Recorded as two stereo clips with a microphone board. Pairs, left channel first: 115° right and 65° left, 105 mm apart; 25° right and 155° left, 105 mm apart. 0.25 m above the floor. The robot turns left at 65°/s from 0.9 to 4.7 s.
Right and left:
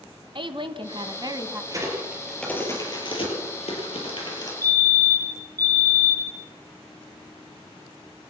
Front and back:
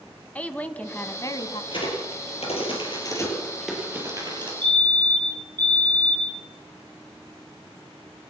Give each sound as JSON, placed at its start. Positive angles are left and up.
{"t": 0.3, "sound": "a woman speaking", "azimuth_deg": 50, "distance_m": 1.7}
{"t": 1.7, "sound": "a crack", "azimuth_deg": 15, "distance_m": 7.5}
{"t": 4.6, "sound": "a fire alarm", "azimuth_deg": 120, "distance_m": 4.5}